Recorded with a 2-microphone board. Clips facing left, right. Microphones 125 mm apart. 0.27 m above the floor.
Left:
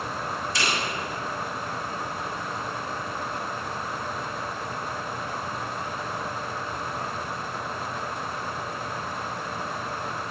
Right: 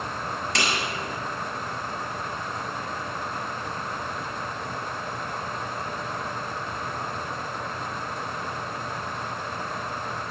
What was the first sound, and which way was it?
A snare drum, 75° right (ahead or behind).